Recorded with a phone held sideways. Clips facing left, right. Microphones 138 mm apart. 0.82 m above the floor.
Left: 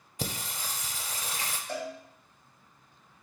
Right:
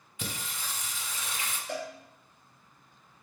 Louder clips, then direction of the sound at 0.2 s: Left 3 dB; 40° left (ahead or behind).